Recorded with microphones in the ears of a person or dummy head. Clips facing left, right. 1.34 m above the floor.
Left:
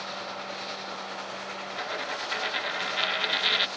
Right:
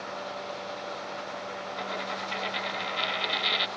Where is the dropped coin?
10° left (ahead or behind).